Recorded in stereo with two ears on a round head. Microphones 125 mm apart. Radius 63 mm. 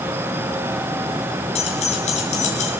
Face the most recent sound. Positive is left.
turn(degrees=55)  # may be behind; listen again after turning